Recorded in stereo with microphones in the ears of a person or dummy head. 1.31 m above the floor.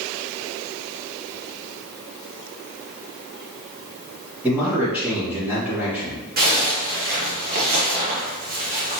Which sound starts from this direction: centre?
A man speaking, at 4.4 s.